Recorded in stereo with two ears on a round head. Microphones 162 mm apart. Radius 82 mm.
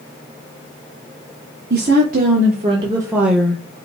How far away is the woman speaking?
About 1.5 m.